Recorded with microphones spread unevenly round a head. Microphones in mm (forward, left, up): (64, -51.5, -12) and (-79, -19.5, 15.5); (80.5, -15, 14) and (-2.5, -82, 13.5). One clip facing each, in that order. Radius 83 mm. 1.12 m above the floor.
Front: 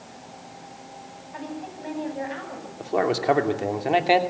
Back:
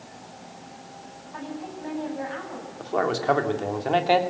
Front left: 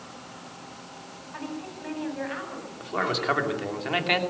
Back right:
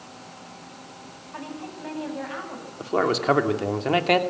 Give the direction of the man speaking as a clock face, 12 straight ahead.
3 o'clock.